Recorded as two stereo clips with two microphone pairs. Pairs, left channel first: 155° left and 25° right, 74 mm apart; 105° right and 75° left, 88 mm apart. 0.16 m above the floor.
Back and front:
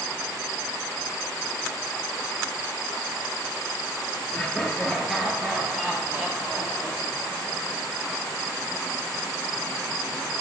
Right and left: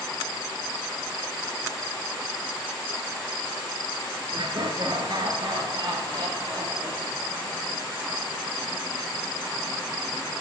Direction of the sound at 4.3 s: 75° left.